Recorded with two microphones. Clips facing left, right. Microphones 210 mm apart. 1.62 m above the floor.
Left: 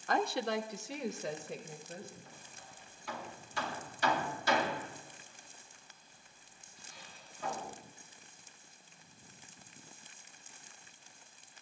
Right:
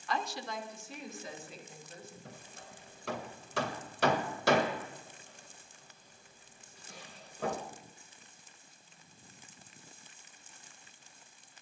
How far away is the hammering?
About 1.8 m.